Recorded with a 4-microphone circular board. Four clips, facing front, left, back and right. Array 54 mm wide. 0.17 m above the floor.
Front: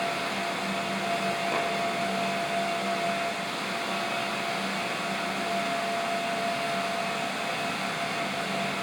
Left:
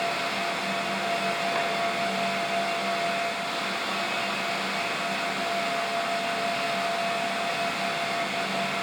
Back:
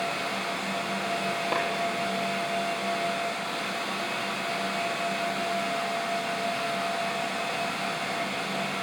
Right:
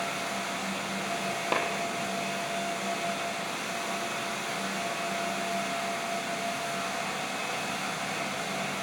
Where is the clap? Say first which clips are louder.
Right 4 dB, back 3 dB; 115° right, 4.5 m.